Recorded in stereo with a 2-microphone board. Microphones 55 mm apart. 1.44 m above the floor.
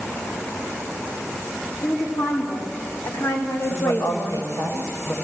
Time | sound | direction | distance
1.8 | a woman speaking | 80° left | 4.5 m
3.7 | a woman speaking | 60° left (ahead or behind) | 7 m